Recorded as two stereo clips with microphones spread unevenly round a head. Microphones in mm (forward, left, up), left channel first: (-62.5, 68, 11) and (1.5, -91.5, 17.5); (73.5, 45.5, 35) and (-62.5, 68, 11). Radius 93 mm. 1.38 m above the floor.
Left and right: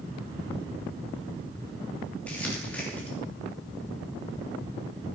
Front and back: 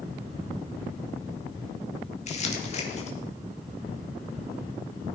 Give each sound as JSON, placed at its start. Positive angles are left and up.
{"t": 2.3, "sound": "crumpling", "azimuth_deg": 30, "distance_m": 2.5}